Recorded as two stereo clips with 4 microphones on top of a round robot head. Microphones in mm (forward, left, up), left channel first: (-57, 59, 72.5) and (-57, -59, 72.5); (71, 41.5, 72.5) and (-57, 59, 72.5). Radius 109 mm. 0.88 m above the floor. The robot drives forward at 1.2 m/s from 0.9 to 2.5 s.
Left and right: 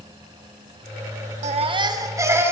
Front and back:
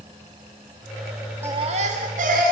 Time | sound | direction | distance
1.4 | a baby crying | 110° right | 0.6 m